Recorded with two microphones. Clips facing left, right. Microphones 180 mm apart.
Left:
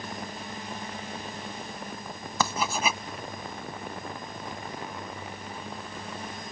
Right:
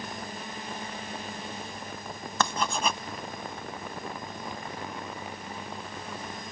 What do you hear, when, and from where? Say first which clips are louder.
2.4 s writing: even; 5° left (ahead or behind)